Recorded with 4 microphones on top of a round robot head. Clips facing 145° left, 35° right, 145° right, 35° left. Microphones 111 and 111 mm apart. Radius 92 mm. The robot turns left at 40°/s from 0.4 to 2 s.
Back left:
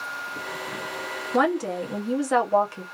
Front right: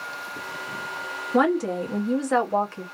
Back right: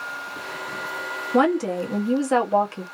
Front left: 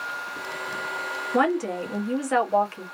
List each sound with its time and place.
1.3 s a woman speaking: 120° right, 1.0 m; by 2.9 s 145° right, 1.0 m